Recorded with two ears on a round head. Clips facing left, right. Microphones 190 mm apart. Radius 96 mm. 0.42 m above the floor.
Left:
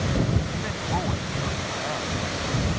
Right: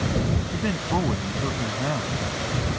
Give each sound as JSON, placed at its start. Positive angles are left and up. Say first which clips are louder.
{"t": 0.5, "sound": "a man speaking", "louder": "right 4 dB", "side_deg": -45}